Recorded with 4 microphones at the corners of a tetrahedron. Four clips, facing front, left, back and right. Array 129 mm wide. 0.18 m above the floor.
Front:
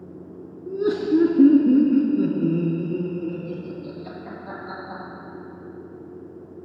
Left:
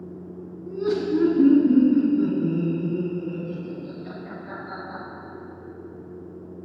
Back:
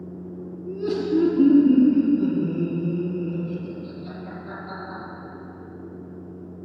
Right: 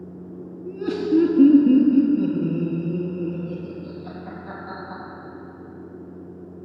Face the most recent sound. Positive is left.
turn(degrees=-10)